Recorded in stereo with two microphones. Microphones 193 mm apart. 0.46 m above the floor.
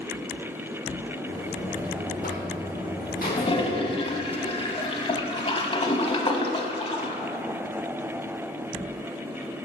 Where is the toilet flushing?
30° left (ahead or behind), 0.5 m.